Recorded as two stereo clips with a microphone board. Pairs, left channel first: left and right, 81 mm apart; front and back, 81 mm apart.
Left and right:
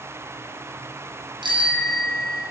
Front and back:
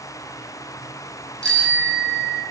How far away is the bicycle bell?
About 3.5 m.